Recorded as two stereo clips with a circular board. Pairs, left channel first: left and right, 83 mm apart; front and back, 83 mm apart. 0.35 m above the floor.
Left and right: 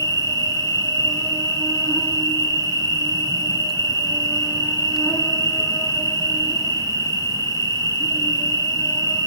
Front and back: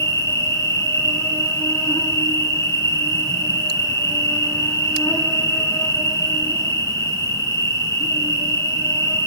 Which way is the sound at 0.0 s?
45° left.